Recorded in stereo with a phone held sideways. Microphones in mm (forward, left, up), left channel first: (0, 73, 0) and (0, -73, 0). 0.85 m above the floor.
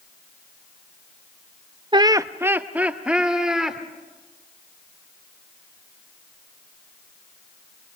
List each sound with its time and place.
1.9 s laughter: 30° right (ahead or behind), 0.6 m; by 3.8 s 5° right (ahead or behind), 2.5 m